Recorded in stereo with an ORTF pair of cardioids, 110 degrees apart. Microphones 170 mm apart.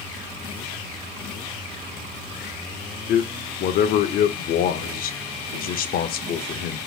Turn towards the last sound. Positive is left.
turn(degrees=60)